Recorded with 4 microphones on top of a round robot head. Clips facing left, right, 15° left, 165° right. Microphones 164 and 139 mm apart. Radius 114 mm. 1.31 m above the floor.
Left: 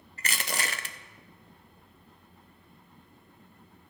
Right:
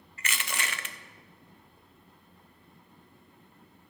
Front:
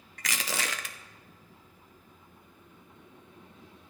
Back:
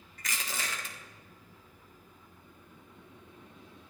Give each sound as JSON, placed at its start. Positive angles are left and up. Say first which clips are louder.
{"t": 0.2, "sound": "crushing", "louder": "left 2 dB, front 4 dB", "azimuth_deg": 35, "distance_m": 0.7}